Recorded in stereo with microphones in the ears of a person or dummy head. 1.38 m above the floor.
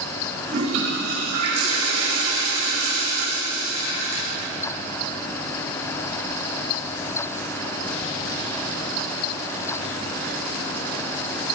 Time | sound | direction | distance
0.5 | a toilet flushing | 80° right | 3.5 m